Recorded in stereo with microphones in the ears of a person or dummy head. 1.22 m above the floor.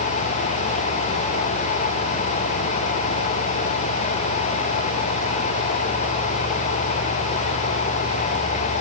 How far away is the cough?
No cough in this recording.